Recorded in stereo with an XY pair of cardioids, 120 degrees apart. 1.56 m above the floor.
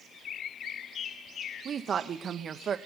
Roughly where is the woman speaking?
Ahead right.